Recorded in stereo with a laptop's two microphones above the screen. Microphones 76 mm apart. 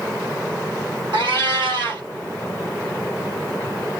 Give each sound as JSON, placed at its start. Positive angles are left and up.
{"t": 1.1, "sound": "a cat meowing", "side_deg": -70, "distance_m": 3.0}